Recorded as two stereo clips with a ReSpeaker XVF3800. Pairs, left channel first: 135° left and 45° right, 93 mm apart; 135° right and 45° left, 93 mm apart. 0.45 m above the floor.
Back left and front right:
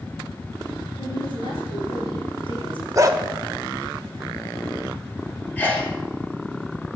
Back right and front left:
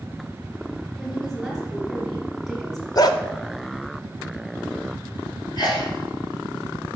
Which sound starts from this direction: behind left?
A woman speaking, at 1.0 s.